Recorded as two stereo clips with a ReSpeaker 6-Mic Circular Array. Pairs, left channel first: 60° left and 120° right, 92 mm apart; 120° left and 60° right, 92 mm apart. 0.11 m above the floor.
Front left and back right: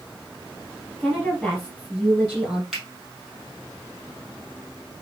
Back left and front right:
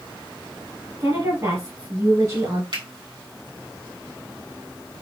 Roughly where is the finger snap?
Ahead right.